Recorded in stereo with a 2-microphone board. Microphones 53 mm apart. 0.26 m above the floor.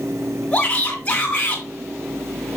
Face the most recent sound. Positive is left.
turn(degrees=25)  # may be behind; listen again after turning